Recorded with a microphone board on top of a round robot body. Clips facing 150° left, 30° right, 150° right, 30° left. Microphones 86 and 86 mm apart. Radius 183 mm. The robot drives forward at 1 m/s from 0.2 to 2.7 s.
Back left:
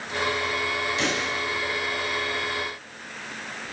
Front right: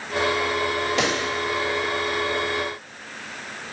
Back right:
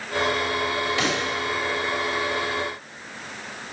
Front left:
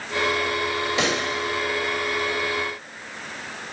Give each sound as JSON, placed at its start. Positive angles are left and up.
{"t": 1.0, "sound": "a pop", "azimuth_deg": -40, "distance_m": 2.0}